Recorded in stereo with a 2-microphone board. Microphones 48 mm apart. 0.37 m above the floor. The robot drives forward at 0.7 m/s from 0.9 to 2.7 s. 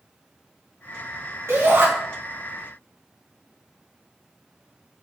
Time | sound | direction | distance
1.5 | a shout | 60° right (ahead or behind) | 3 m